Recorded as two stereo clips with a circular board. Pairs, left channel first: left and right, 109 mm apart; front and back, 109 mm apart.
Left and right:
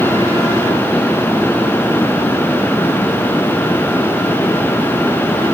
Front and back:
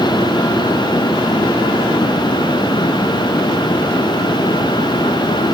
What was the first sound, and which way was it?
Only background noise.